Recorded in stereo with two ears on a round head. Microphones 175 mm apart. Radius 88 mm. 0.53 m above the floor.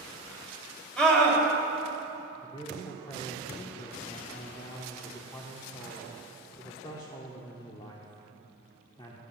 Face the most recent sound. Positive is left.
turn(degrees=25)  # may be behind; listen again after turning